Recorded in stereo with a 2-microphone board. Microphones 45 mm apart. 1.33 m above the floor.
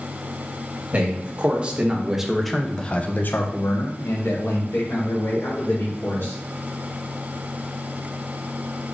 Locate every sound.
0.9 s a man speaking: 30° right (ahead or behind), 1.4 m; by 6.3 s 70° left (ahead or behind), 2 m